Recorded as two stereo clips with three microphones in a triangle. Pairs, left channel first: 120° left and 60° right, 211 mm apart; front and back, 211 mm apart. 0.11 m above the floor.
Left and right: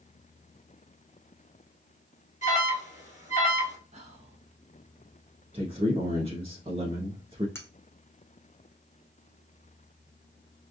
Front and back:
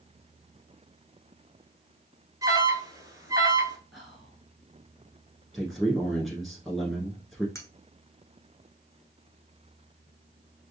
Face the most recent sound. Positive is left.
turn(degrees=55)